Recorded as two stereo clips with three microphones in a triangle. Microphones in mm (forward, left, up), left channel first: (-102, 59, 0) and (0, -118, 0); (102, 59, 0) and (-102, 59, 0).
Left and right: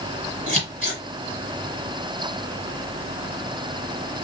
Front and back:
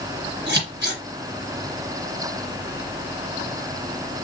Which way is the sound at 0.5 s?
165° left.